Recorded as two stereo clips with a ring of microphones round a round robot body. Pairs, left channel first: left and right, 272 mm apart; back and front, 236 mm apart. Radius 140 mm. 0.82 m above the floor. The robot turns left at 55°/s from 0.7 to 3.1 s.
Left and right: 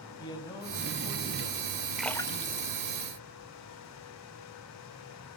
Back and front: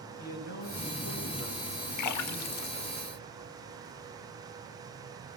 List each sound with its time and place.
0.2 s a man speaking: 170° left, 6.5 m; by 3.0 s 40° left, 6.5 m
2.0 s a splash: straight behind, 1.3 m; by 3.9 s 120° left, 1.3 m